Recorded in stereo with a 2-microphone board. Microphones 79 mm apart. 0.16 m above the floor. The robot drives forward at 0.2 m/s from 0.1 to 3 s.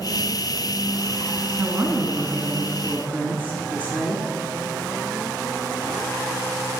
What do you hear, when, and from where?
1.6 s a woman speaking: 25° right (ahead or behind), 1.6 m